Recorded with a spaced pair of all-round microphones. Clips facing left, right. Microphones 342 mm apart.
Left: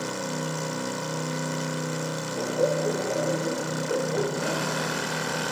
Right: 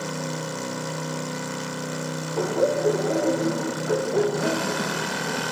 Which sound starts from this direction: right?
Laughter, at 2.4 s.